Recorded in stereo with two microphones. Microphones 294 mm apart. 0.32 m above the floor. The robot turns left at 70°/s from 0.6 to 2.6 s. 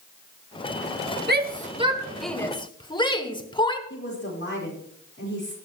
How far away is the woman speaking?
About 6 m.